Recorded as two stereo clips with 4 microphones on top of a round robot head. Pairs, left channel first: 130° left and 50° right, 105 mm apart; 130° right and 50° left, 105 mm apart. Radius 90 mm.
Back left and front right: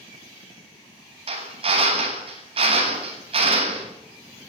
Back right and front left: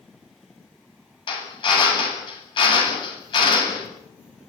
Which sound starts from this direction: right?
A drill, at 1.3 s.